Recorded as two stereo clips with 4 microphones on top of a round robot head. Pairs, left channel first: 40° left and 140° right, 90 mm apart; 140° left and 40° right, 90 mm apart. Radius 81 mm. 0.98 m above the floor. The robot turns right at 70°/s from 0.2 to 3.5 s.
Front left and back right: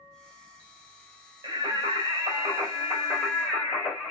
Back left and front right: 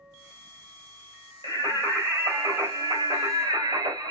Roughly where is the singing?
Behind.